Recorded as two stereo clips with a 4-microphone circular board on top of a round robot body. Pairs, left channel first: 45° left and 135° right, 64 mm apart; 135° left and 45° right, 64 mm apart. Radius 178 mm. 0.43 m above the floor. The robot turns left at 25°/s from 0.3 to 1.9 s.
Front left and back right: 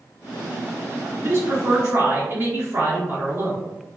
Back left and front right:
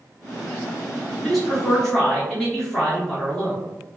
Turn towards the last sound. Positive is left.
turn(degrees=-145)